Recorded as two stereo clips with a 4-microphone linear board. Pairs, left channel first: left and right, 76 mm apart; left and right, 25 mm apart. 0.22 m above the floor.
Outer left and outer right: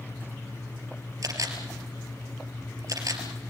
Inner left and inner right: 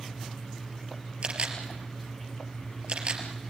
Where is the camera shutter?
50° right (ahead or behind), 3 m.